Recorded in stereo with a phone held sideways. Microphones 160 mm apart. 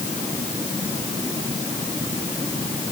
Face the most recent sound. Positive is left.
No sound to turn to.